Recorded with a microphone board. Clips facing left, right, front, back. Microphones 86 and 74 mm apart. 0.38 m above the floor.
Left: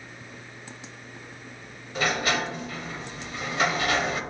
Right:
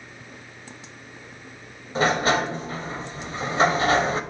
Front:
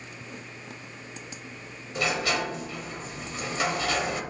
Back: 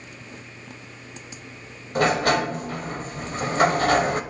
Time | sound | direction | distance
1.9 | a sliding door | 145° right | 0.6 m